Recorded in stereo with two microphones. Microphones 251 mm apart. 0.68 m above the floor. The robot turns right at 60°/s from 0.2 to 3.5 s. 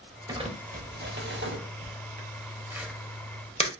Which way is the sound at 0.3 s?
15° right (ahead or behind).